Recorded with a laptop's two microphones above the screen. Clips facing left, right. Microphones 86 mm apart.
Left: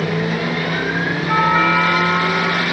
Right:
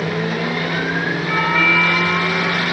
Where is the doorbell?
30° left (ahead or behind).